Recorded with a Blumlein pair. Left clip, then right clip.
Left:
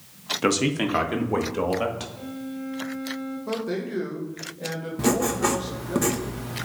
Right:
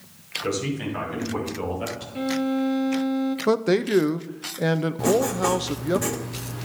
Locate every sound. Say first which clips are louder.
0.4 s a man speaking: left 5 dB; 50° left, 1.3 m; by 2.0 s 60° left, 2 m
2.1 s a violin: right 11 dB; 40° right, 0.5 m
3.5 s a man speaking: right 9 dB; 35° right, 0.5 m
5.0 s writing: even; 5° left, 0.9 m